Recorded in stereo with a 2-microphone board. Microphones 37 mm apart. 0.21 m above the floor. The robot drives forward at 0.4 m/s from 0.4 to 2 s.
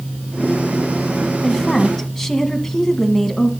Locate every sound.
1.4 s a woman speaking: 15° left (ahead or behind), 1.2 m; by 3.5 s 10° left (ahead or behind), 1.4 m